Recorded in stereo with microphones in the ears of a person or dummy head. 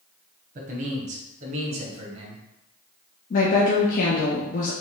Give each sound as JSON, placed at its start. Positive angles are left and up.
{"t": 0.6, "sound": "a man speaking", "side_deg": -40, "distance_m": 0.9}
{"t": 3.3, "sound": "a woman speaking", "side_deg": 40, "distance_m": 0.7}